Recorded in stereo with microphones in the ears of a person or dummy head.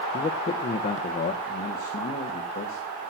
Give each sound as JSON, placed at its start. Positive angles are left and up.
{"t": 0.1, "sound": "a man speaking", "side_deg": 20, "distance_m": 0.8}